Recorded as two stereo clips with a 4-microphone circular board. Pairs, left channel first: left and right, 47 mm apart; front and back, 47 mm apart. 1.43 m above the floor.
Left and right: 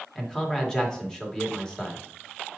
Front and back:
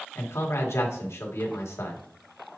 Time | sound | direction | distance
0.1 | a man speaking | 15° left | 1.8 m